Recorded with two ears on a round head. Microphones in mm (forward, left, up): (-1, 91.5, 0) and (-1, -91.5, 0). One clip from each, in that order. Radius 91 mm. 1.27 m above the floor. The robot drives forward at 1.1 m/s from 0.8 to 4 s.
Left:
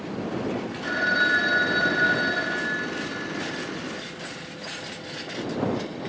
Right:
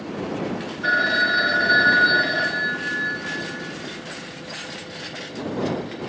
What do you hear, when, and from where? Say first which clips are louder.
0.8 s a phone ringing: right 4 dB; 55° right (ahead or behind), 2.5 m; by 3.7 s 45° right (ahead or behind), 2.5 m